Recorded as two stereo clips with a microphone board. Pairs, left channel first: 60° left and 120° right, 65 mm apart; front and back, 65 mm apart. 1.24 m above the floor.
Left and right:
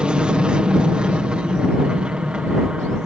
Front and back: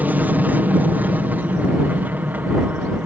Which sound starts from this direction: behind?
An aircraft, at 0.0 s.